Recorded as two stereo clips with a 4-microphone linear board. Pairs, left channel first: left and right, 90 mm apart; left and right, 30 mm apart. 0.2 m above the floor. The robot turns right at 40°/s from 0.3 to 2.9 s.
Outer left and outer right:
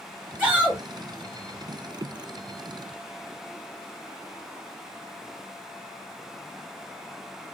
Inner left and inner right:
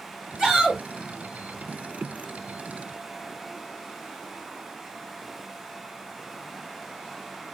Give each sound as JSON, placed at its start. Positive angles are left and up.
{"t": 0.4, "sound": "a shout", "side_deg": -15, "distance_m": 1.2}